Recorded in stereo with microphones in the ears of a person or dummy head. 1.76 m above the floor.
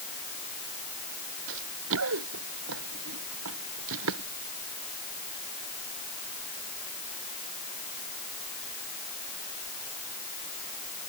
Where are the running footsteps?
75° right (ahead or behind); by 4.3 s 80° right.